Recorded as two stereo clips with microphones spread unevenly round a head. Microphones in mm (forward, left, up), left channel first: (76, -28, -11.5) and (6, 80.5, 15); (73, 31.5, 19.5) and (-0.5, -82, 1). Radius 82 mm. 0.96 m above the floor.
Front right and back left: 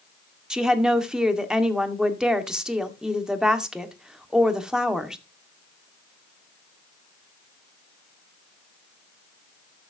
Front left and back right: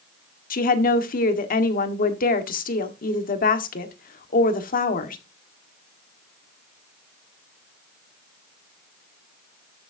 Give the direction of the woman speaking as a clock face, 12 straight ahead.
11 o'clock.